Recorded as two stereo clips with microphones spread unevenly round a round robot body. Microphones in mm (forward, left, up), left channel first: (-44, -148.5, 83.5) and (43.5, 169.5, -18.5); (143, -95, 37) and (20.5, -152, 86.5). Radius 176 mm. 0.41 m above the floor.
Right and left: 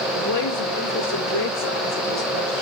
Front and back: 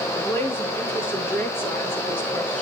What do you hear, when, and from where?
0.1 s a woman speaking: 45° right, 9 m; by 2.6 s 50° right, 8 m